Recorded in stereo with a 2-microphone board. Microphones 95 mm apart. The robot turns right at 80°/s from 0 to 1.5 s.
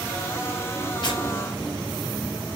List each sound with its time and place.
1.0 s tearing paper: 55° left (ahead or behind), 1.2 m; by 1.2 s 45° left (ahead or behind), 1.2 m